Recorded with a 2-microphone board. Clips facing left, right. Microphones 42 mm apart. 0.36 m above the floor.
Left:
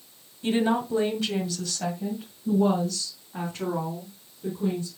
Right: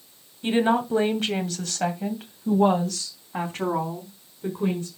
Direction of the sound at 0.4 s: 30° right (ahead or behind).